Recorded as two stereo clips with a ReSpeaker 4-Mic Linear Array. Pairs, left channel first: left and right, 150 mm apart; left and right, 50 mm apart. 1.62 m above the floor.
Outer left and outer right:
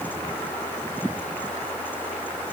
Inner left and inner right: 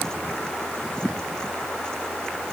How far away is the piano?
No piano in this recording.